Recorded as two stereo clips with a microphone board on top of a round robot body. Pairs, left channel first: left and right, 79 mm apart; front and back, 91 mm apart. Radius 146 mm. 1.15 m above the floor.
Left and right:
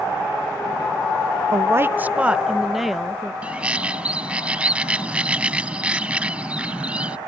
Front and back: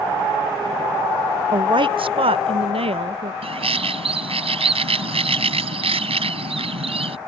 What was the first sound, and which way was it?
A woman speaking, 140° right.